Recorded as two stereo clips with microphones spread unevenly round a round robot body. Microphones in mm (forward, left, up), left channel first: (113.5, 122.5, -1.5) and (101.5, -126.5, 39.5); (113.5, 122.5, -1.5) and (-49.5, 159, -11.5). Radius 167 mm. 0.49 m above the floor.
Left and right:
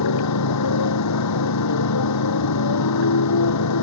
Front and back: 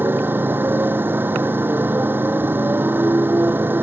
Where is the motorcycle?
90° left.